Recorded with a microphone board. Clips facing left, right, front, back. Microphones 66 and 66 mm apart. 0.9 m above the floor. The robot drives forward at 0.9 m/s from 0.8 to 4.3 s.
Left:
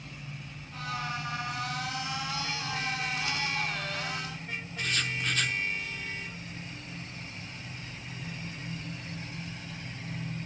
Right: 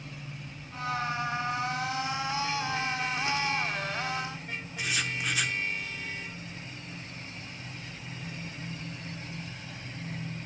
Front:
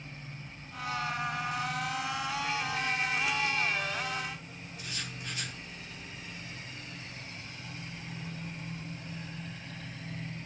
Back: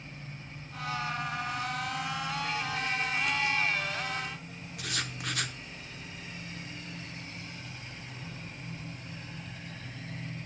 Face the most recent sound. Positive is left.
turn(degrees=-170)